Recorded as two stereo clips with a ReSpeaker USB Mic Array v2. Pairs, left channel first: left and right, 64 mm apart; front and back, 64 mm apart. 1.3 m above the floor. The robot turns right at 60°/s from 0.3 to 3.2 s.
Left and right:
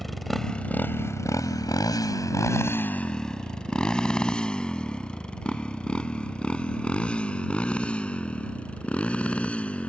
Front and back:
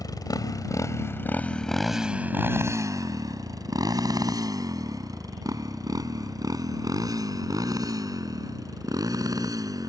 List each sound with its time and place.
0.0 s a motorcycle: 5° left; by 9.9 s 160° left